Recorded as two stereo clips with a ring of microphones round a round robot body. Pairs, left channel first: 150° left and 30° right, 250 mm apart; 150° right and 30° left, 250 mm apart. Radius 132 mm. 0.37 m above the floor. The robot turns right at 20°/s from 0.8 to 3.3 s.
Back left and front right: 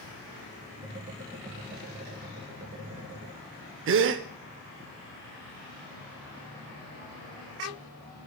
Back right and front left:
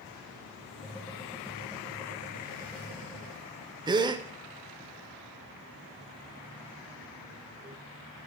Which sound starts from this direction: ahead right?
A gasp, at 3.9 s.